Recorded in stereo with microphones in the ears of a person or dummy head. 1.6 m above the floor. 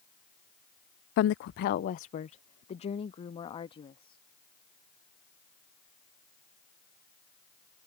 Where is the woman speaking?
60° left (ahead or behind); by 4.2 s 25° left (ahead or behind).